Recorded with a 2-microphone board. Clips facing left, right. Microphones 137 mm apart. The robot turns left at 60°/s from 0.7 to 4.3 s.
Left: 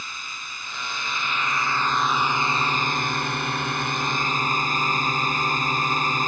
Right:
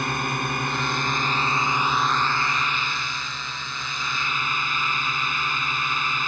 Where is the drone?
100° right; by 6.3 s 45° left.